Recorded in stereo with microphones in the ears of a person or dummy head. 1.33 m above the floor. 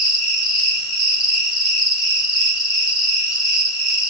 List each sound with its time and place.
0.0 s an insect: 45° left (ahead or behind), 4.5 m